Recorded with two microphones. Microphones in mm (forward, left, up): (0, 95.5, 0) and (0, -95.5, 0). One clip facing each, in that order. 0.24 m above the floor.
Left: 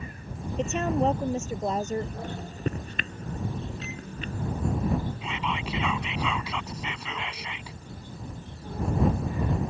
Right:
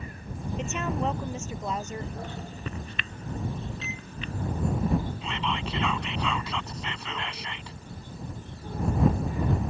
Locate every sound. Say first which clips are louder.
0.6 s a woman speaking: left 5 dB; 40° left (ahead or behind)
2.2 s a microwave: left 5 dB; 45° left (ahead or behind)
5.2 s whispering: even; 5° left (ahead or behind)